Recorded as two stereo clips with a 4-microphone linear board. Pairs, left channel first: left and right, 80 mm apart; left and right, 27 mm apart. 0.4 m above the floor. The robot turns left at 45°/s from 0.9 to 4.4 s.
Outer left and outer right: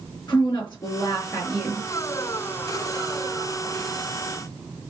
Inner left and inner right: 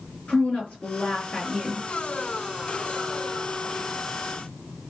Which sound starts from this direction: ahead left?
A woman speaking, at 0.3 s.